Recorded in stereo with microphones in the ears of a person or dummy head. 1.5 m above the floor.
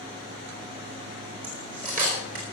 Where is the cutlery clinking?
40° right (ahead or behind), 3.5 m.